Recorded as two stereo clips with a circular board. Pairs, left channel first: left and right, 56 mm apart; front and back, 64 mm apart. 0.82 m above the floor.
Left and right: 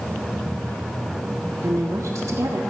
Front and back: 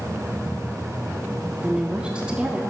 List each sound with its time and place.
1.6 s a woman speaking: 105° right, 1.4 m